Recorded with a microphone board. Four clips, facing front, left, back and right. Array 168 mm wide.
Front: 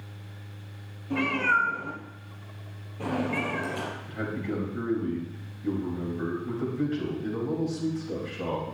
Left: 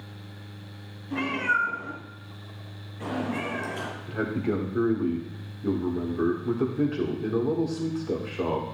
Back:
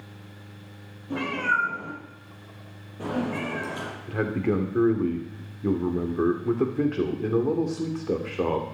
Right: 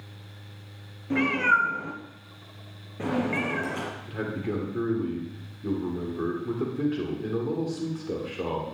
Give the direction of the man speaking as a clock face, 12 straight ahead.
6 o'clock.